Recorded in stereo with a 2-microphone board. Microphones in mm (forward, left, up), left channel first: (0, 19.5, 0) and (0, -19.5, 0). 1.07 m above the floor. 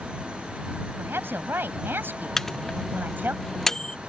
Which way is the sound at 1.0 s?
80° right.